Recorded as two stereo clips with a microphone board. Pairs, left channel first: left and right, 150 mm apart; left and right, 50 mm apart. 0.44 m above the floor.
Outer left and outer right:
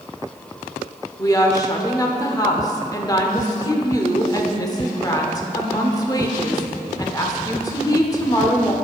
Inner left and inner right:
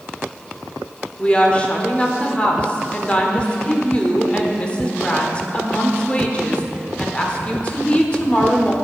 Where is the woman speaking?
25° left (ahead or behind), 0.9 m.